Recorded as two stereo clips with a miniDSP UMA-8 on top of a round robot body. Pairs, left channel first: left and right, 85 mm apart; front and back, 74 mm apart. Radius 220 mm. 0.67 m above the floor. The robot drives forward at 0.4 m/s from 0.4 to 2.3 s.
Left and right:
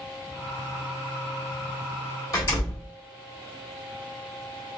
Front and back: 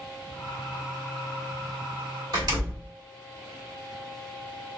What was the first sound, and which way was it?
A door slam, 145° left.